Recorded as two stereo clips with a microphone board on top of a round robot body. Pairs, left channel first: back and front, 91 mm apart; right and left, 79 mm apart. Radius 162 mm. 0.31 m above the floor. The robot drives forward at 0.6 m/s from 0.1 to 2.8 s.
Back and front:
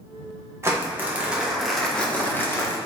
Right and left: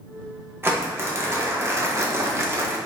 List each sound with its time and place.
0.6 s crumpling: 45° left, 1.4 m; by 2.8 s 135° left, 1.4 m